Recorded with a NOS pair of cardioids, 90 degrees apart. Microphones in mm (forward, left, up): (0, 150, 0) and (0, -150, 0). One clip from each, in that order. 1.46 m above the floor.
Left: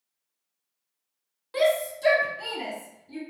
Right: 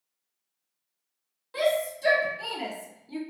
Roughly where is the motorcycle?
I don't hear a motorcycle.